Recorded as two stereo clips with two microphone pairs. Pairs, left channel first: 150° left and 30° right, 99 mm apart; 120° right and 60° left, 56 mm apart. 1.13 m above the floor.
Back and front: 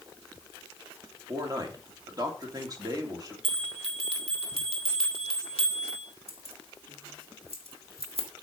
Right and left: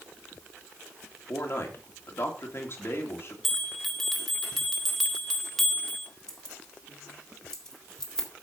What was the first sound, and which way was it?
A man speaking, 80° right.